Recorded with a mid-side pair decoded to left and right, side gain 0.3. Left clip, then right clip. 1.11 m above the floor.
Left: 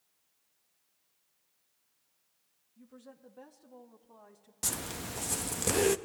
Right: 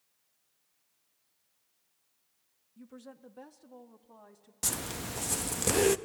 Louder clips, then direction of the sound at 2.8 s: Right 4 dB; 65° right.